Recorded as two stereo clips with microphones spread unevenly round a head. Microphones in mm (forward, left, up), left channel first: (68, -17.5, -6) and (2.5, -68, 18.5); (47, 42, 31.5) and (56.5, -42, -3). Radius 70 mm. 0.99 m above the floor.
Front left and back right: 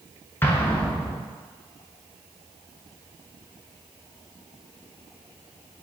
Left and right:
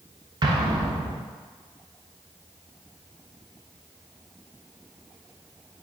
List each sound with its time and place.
0.4 s an explosion: 35° right, 0.7 m